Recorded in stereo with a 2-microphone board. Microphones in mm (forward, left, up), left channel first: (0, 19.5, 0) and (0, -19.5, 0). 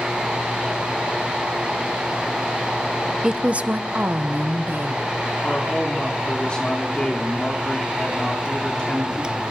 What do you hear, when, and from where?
3.2 s a woman speaking: 15° right (ahead or behind), 0.6 m; by 5.1 s 55° right (ahead or behind), 1.5 m
5.4 s a man speaking: 25° left (ahead or behind), 3.5 m